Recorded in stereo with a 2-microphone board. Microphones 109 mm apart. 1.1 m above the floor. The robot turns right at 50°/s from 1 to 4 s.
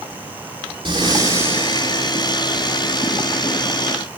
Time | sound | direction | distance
0.8 | breathing | 45° right | 2 m